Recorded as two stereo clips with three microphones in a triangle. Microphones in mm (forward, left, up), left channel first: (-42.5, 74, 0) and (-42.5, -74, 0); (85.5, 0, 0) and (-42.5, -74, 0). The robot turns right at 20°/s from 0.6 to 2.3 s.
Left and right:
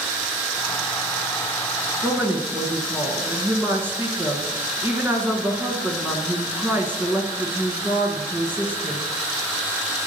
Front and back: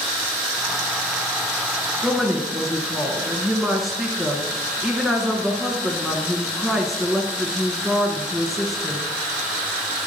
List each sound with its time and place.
2.0 s a woman speaking: 70° right, 1.4 m; by 9.0 s 65° right, 1.4 m